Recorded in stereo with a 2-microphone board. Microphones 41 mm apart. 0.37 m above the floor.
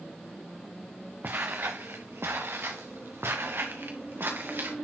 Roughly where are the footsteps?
Right.